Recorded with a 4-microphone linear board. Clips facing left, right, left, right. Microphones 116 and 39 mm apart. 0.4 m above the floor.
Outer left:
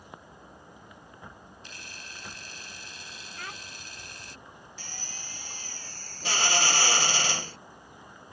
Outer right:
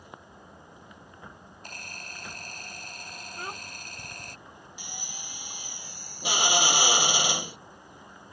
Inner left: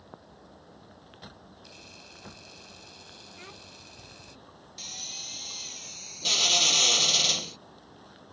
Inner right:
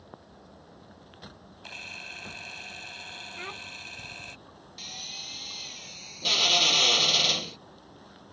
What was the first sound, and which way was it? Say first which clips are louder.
A camera shutter: outer right 6 dB, inner right 13 dB; 55° right (ahead or behind).